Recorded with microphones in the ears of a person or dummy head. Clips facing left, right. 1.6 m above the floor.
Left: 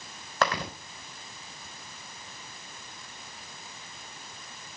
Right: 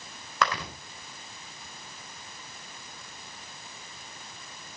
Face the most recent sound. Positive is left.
turn(degrees=30)  # may be behind; listen again after turning